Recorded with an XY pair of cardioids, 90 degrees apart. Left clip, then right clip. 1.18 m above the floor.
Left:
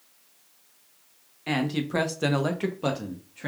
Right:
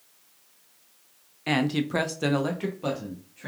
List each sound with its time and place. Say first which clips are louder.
1.5 s a man speaking: right 2 dB; 30° right, 0.7 m; by 3.5 s 55° left, 0.9 m